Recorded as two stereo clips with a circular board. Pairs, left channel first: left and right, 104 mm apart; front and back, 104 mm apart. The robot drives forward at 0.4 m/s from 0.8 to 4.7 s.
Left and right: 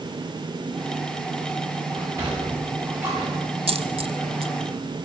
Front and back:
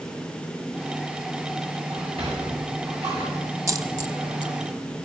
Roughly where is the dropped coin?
Behind right.